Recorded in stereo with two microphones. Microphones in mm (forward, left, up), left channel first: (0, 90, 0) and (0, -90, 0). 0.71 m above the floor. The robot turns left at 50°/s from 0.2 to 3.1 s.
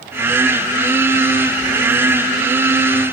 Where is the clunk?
No clunk in this recording.